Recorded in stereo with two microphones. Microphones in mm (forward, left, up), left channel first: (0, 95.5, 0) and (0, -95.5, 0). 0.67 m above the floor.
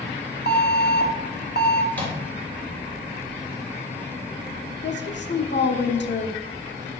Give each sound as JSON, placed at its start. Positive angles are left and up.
{"t": 0.5, "sound": "an alarm", "side_deg": 55, "distance_m": 1.2}
{"t": 1.9, "sound": "a microwave", "side_deg": 10, "distance_m": 3.0}
{"t": 4.8, "sound": "a woman speaking", "side_deg": 65, "distance_m": 1.3}